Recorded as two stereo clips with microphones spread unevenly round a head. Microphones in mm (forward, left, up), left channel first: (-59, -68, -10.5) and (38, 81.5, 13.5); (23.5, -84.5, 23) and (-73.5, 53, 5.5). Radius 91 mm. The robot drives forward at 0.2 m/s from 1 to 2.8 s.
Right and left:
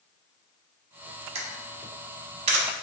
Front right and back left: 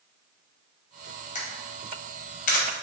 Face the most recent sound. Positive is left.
turn(degrees=0)